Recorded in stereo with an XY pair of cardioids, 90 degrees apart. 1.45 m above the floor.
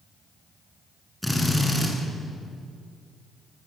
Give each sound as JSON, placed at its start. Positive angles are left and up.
{"t": 1.2, "sound": "a drill", "azimuth_deg": 5, "distance_m": 8.5}